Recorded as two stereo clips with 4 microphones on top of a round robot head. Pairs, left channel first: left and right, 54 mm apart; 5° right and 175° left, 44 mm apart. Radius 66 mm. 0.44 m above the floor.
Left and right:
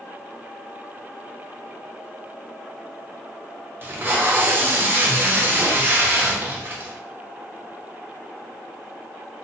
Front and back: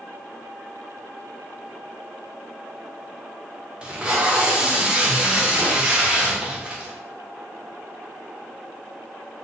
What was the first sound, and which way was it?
Tape being pulled, 125° right.